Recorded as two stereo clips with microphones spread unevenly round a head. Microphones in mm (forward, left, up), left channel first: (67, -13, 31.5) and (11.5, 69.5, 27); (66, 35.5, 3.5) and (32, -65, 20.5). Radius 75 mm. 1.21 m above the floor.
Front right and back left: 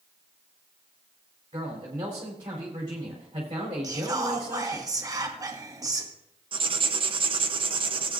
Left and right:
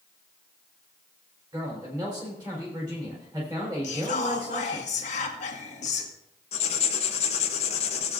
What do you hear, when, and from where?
1.5 s a man speaking: 175° right, 4 m
3.8 s whispering: 70° left, 1.8 m
6.5 s writing: 95° left, 0.9 m